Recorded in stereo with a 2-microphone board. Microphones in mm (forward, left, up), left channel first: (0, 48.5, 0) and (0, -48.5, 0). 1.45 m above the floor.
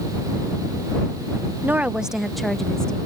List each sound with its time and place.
1.6 s a woman speaking: 20° right (ahead or behind); by 3.0 s 10° left (ahead or behind)